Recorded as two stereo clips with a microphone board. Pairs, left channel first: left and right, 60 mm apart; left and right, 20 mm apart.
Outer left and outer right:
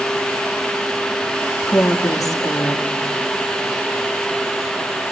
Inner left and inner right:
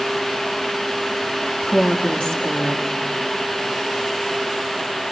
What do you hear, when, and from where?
1.6 s a woman speaking: 60° left (ahead or behind), 3.5 m